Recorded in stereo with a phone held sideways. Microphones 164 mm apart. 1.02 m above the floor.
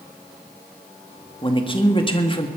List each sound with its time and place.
1.4 s a man speaking: 30° left (ahead or behind), 1.9 m